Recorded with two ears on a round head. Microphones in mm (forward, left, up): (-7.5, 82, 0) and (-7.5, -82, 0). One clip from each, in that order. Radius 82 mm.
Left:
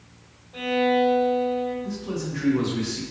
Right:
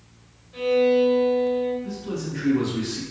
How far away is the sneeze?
I don't hear a sneeze.